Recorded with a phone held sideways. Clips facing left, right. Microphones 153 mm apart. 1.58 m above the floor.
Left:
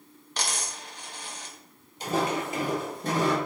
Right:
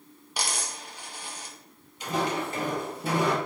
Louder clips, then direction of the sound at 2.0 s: Left 1 dB; 35° left (ahead or behind).